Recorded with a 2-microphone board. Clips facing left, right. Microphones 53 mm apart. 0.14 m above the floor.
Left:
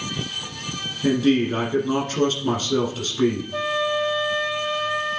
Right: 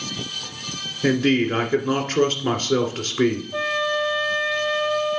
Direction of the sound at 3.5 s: 10° left (ahead or behind).